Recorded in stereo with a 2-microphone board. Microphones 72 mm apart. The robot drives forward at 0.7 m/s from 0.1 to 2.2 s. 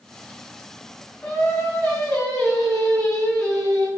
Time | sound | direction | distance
1.2 | singing | 20° left (ahead or behind) | 1.6 m